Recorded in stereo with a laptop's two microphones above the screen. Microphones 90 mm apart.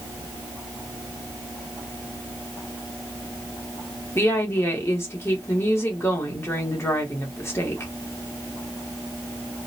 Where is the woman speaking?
30° left (ahead or behind), 1.0 m.